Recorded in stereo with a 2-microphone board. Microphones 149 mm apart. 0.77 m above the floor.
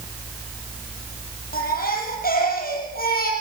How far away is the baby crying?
About 7 m.